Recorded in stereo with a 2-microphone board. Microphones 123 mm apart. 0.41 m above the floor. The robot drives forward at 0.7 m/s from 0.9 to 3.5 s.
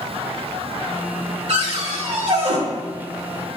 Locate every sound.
1.5 s a cupboard door: 60° right (ahead or behind), 1.9 m; by 2.6 s 55° right (ahead or behind), 2 m